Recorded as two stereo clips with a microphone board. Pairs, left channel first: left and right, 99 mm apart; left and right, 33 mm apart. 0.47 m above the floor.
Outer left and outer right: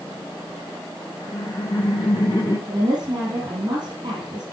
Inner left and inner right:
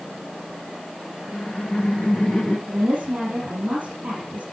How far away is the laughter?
About 2 m.